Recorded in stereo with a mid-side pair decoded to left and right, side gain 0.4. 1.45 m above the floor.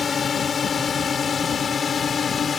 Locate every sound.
0.0 s a drone: 45° left